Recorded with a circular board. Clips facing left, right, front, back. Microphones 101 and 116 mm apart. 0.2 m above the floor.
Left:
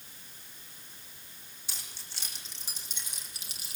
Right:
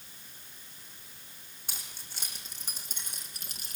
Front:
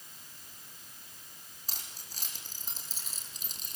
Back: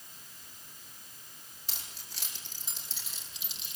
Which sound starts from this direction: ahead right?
Keys jangling, at 1.7 s.